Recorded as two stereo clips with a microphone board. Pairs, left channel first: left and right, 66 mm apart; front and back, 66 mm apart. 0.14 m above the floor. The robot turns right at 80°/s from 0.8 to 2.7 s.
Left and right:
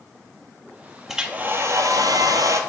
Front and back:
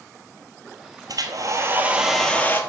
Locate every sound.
1.1 s a hair dryer: 175° right, 0.9 m; by 2.6 s 55° right, 0.9 m